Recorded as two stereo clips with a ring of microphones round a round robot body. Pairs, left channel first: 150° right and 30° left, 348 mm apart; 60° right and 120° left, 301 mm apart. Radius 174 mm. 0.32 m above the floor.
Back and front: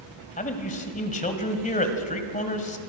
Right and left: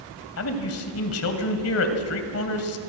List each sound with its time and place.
0.4 s a man speaking: 85° right, 2 m